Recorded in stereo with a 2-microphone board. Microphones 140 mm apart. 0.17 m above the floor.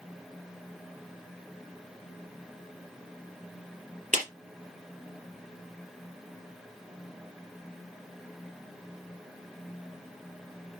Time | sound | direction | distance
4.1 | a clap | 65° right (ahead or behind) | 4 m